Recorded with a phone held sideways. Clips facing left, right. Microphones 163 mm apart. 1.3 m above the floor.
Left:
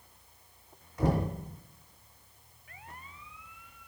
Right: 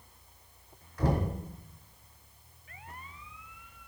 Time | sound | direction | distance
1.0 | knocking | 25° left (ahead or behind) | 3 m